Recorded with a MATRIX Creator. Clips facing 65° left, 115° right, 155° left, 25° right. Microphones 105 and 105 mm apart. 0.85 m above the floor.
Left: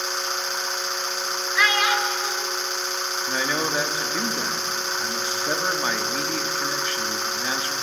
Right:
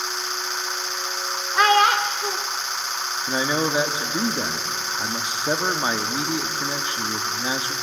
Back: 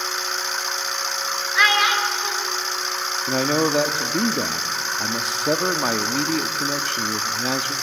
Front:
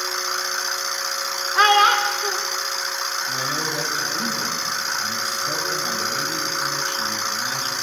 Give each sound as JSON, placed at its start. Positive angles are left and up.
{"t": 1.6, "sound": "a child speaking", "azimuth_deg": -70, "distance_m": 1.1}
{"t": 3.3, "sound": "a man speaking", "azimuth_deg": 175, "distance_m": 1.1}